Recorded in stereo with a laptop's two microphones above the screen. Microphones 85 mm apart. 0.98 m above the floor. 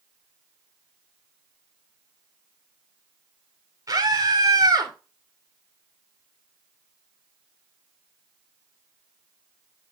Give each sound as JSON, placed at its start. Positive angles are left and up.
{"t": 3.9, "sound": "a scream", "side_deg": -45, "distance_m": 3.5}